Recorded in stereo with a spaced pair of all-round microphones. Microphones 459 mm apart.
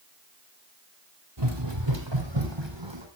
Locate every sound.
1.4 s running footsteps: 65° right (ahead or behind), 3.5 m; by 3.1 s 70° right (ahead or behind), 4.5 m